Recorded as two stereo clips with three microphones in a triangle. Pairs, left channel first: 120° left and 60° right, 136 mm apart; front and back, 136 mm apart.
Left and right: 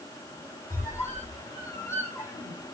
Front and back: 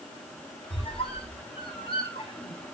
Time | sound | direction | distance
0.7 | a squeak | 50° left | 8 m